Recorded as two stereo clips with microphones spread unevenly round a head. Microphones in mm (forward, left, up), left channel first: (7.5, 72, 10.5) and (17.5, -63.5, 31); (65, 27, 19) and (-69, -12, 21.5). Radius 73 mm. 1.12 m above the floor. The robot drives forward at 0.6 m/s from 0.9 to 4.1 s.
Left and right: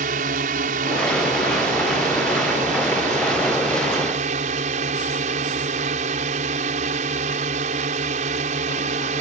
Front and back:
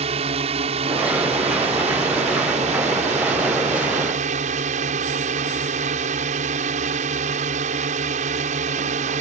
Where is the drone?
115° right; by 9.2 s 125° right.